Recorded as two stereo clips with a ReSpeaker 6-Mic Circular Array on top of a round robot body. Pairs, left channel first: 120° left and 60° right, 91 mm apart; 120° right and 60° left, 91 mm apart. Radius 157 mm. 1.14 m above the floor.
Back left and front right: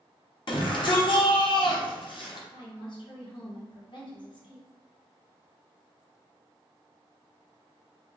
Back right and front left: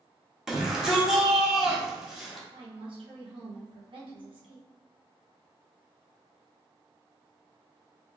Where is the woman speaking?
85° left, 1.4 m.